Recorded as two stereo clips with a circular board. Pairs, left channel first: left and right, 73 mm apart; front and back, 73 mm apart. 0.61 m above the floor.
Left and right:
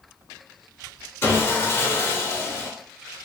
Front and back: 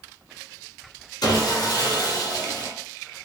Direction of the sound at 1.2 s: 30° left.